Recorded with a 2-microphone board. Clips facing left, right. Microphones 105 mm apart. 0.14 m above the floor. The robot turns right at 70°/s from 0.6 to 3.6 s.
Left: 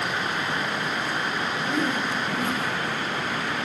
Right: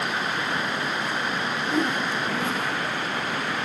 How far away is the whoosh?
About 3 m.